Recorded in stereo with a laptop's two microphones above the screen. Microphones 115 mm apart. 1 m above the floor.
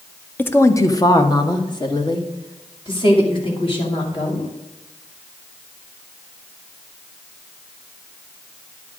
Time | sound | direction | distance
0.4 | a woman speaking | 15° left (ahead or behind) | 0.8 m